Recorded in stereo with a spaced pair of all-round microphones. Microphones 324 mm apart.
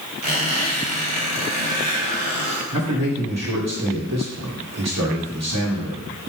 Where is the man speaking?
55° right (ahead or behind), 1.6 m.